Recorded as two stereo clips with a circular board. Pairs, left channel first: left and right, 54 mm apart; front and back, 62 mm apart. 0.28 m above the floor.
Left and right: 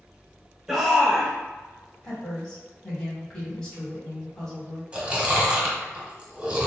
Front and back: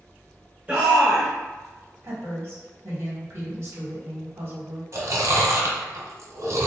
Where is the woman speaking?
160° left, 1.5 m.